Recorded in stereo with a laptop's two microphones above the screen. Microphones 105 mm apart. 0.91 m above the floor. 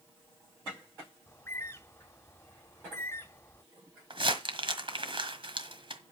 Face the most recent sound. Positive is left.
turn(degrees=-55)  # may be behind; listen again after turning